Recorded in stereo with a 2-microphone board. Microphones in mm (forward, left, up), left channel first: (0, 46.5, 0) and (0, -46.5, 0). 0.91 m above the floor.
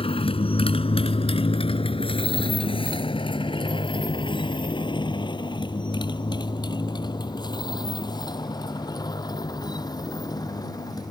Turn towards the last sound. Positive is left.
turn(degrees=45)  # may be behind; listen again after turning